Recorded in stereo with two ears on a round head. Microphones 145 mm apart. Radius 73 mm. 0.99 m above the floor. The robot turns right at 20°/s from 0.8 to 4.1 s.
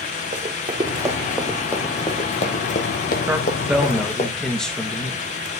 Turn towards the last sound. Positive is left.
turn(degrees=5)  # may be behind; listen again after turning